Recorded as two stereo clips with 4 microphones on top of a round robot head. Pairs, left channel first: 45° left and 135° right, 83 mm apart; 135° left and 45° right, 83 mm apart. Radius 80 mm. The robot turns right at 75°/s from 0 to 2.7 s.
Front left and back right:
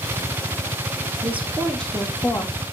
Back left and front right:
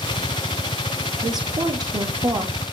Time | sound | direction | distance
1.2 | a woman speaking | 80° right | 1.2 m